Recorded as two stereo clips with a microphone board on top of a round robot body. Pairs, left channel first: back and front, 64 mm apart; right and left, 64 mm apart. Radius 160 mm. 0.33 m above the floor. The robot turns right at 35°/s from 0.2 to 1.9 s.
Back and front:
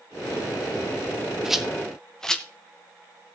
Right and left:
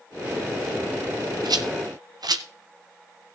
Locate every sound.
1.4 s a rattle: 80° left, 1.3 m; by 2.4 s 100° left, 1.3 m